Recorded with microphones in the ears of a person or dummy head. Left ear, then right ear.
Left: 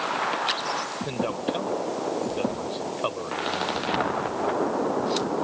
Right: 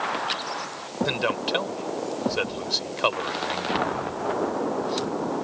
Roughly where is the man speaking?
Right.